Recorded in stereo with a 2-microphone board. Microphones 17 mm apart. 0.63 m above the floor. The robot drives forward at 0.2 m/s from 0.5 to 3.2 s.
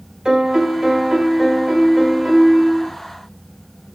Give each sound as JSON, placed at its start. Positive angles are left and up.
{"t": 0.2, "sound": "a piano", "side_deg": -40, "distance_m": 0.8}